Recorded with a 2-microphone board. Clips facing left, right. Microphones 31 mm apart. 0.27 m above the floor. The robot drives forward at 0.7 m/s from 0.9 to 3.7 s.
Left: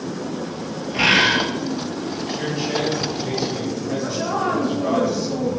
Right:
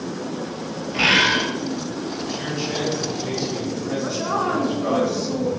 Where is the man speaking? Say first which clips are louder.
Left 4 dB; 20° left (ahead or behind), 1.7 m; by 5.0 s 15° left (ahead or behind), 2.5 m.